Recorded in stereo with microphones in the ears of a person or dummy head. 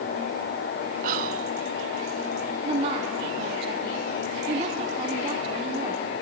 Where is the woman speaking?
30° right (ahead or behind), 1.3 m.